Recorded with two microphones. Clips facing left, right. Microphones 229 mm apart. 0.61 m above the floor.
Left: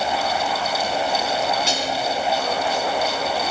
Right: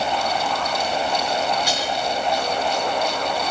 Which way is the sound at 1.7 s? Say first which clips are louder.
Left 1 dB; 25° left (ahead or behind).